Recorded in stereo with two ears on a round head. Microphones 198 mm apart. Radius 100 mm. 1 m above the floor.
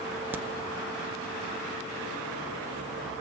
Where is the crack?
10° right (ahead or behind), 0.5 m.